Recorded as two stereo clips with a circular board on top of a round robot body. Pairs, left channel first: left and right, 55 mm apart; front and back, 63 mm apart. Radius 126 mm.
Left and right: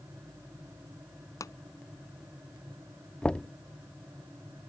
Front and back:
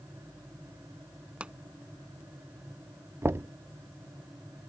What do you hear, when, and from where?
1.4 s a pop: 110° left
3.2 s knocking: 155° left